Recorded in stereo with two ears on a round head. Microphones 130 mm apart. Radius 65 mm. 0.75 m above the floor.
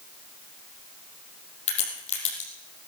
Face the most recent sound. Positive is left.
turn(degrees=50)  # may be behind; listen again after turning